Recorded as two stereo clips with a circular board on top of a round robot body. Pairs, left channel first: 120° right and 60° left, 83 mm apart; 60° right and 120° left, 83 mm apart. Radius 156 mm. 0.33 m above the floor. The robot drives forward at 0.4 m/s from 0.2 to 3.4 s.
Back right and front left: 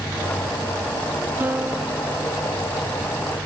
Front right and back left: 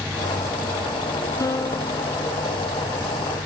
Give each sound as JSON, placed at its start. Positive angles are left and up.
{"t": 1.4, "sound": "a piano", "azimuth_deg": -10}